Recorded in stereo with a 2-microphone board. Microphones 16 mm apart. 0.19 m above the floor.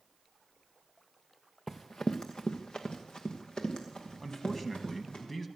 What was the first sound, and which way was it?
Running footsteps, 30° left (ahead or behind).